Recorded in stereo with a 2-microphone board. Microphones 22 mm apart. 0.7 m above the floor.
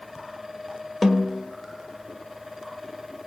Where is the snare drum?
Centre (ahead or behind), 1.6 m.